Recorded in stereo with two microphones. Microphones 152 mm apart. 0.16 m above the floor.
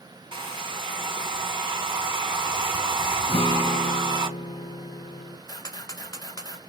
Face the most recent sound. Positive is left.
turn(degrees=25)  # may be behind; listen again after turning